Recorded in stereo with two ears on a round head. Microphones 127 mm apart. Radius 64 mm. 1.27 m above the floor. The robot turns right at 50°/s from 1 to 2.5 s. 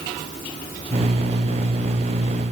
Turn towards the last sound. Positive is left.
No sound to turn to.